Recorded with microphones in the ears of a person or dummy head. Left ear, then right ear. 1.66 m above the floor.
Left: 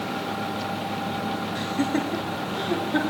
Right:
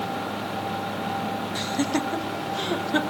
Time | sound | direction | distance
1.6 | laughter | 30° right (ahead or behind) | 4 m